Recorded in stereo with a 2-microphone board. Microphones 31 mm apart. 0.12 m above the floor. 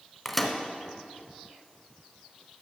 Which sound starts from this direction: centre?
A microwave, at 0.2 s.